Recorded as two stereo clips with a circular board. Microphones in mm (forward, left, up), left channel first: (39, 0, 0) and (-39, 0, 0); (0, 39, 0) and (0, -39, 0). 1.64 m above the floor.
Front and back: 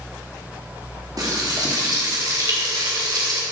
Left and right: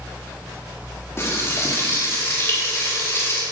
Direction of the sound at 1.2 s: 145° left.